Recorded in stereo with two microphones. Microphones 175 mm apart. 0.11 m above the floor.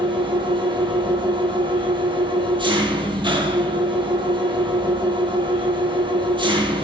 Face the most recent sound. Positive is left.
turn(degrees=-30)  # may be behind; listen again after turning